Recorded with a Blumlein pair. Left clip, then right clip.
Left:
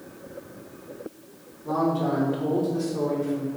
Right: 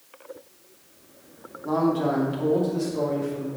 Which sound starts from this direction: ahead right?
A man speaking, at 1.6 s.